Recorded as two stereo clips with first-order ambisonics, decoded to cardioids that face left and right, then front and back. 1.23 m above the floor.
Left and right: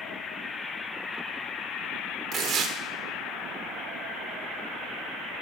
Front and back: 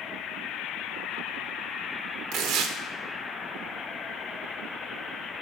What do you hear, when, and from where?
2.3 s tearing paper: 145° right, 1.7 m